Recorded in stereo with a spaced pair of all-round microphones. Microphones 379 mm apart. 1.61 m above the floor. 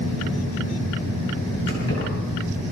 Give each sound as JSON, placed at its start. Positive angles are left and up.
{"t": 1.7, "sound": "keys jangling", "side_deg": 40, "distance_m": 8.0}